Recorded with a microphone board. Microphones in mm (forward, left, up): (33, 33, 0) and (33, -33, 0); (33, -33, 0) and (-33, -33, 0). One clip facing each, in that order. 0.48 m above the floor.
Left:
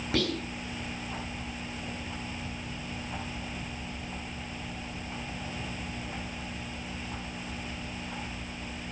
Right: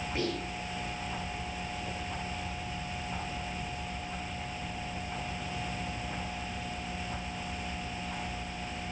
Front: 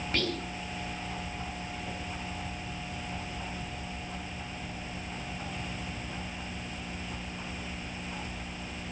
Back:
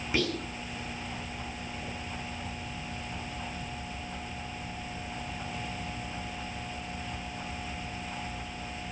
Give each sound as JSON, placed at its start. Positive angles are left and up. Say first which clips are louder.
{"t": 0.1, "sound": "whispering", "louder": "left 4 dB, back 2 dB", "azimuth_deg": 100, "distance_m": 6.0}